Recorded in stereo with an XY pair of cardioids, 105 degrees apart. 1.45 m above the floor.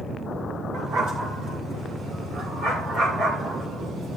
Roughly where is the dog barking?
Ahead right.